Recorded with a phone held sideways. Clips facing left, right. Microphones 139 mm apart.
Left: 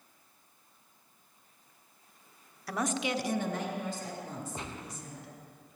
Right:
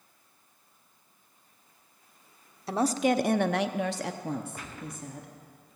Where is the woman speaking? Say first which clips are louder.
Right 7 dB; 25° right (ahead or behind), 0.7 m; by 5.3 s 50° right (ahead or behind), 1.5 m.